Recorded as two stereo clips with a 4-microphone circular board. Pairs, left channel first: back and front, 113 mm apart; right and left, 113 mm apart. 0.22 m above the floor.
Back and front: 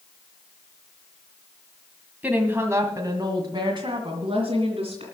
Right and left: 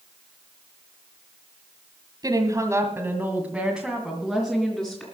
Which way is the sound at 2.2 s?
70° left.